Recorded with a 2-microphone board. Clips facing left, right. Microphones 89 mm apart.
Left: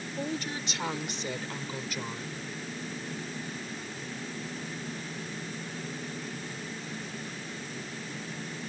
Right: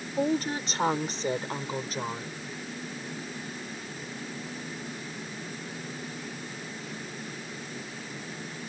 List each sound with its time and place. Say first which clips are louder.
0.2 s a woman speaking: right 8 dB; 40° right (ahead or behind); by 2.4 s 30° right (ahead or behind)